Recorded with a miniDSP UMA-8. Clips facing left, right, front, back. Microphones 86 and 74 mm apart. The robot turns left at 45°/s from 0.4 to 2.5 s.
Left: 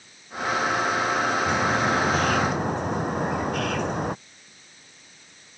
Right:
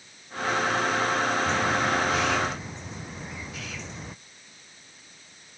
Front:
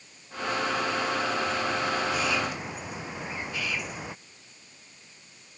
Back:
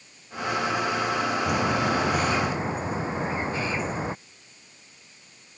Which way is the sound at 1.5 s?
170° left.